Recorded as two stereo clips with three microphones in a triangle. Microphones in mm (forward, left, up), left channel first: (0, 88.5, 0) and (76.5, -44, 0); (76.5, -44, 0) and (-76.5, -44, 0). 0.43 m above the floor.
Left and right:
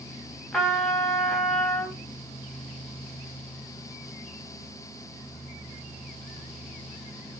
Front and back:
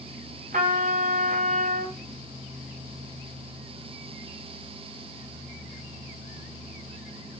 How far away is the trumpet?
About 3 m.